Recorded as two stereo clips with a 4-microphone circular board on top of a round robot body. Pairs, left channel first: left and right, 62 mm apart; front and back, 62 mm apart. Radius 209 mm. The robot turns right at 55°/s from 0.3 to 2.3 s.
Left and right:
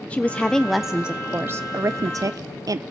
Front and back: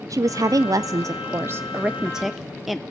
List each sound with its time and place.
0.1 s a woman speaking: 155° left, 0.5 m; by 2.8 s 95° right, 0.5 m